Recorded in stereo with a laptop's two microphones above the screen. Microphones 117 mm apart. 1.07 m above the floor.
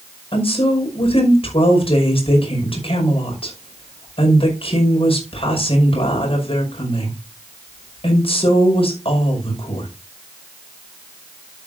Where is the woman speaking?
55° left (ahead or behind), 5.5 m.